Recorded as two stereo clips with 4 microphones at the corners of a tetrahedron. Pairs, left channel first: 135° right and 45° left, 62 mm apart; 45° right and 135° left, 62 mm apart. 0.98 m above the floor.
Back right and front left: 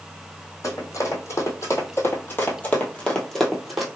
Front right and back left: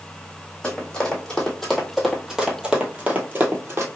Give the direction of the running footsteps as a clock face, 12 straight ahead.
4 o'clock.